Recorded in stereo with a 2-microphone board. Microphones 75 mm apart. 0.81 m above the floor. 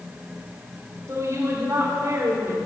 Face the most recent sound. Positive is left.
turn(degrees=-40)  # may be behind; listen again after turning